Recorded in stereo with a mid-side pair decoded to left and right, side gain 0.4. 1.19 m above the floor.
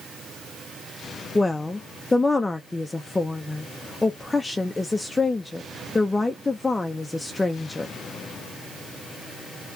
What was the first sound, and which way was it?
A woman speaking, 20° left.